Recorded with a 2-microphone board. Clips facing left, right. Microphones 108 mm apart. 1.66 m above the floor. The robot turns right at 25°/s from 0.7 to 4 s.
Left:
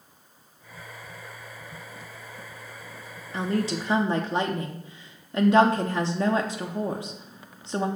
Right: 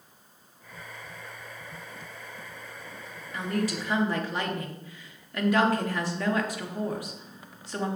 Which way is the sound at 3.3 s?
30° left (ahead or behind).